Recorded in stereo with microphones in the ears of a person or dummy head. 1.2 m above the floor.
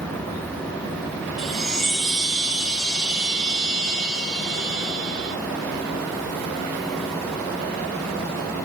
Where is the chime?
Centre (ahead or behind), 4 m.